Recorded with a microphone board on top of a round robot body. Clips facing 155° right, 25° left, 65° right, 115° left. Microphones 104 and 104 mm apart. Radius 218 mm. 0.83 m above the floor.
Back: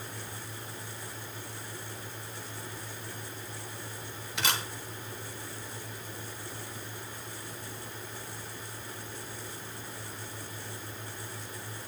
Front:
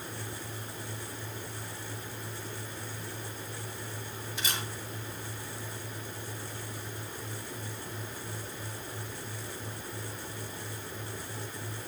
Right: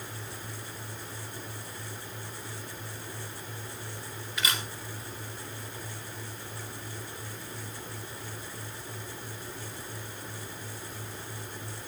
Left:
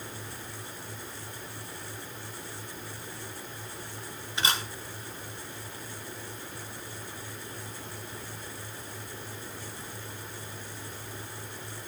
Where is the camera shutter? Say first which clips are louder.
Back 5 dB, left 3 dB; 175° left, 1.1 m.